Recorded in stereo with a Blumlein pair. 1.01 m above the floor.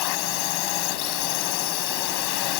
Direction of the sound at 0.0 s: 45° left.